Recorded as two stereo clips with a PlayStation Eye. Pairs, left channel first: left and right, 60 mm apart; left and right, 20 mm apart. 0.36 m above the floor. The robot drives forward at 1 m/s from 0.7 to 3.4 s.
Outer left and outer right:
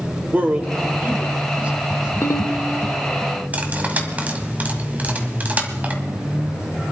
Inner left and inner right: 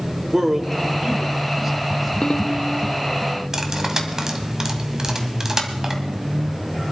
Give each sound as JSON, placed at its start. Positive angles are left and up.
{"t": 0.3, "sound": "a man speaking", "side_deg": -25, "distance_m": 1.1}
{"t": 2.2, "sound": "a ringtone", "side_deg": 45, "distance_m": 0.7}
{"t": 3.5, "sound": "cutlery clinking", "side_deg": -25, "distance_m": 1.5}